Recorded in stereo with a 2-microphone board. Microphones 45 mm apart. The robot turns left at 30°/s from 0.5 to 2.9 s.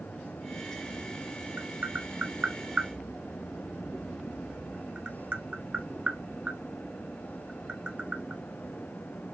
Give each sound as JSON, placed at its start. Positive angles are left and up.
{"t": 1.6, "sound": "tapping", "side_deg": -45, "distance_m": 0.7}